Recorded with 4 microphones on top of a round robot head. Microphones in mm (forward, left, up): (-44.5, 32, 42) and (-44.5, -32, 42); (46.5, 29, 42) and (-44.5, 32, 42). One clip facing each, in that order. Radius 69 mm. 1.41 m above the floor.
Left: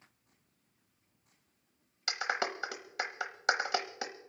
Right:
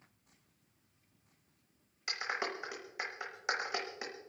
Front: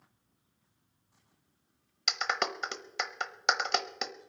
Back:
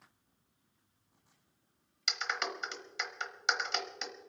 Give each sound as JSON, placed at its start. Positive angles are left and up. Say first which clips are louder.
{"t": 2.1, "sound": "a clap", "louder": "left 4 dB, front 5 dB", "azimuth_deg": 30, "distance_m": 0.9}